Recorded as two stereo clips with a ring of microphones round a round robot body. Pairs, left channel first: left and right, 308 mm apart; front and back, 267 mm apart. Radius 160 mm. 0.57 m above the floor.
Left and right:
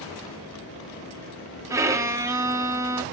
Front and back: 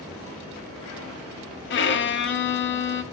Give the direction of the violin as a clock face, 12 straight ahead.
12 o'clock.